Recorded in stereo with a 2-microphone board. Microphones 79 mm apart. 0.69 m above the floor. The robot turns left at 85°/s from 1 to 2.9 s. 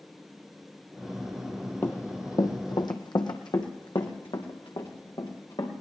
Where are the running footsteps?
25° left (ahead or behind), 0.9 m; by 5.7 s 80° left, 4 m.